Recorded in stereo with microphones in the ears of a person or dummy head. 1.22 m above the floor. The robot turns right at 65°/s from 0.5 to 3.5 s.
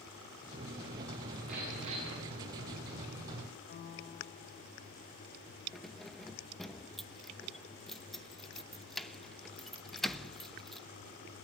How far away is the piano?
About 1.6 m.